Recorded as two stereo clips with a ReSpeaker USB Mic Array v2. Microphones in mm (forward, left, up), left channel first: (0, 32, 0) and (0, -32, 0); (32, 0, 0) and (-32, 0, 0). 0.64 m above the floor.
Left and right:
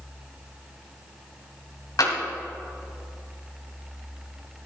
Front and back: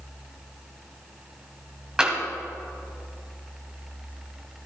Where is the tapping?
105° left, 2 m.